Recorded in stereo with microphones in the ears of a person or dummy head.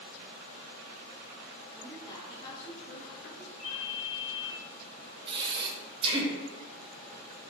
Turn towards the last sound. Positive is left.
turn(degrees=-25)  # may be behind; listen again after turning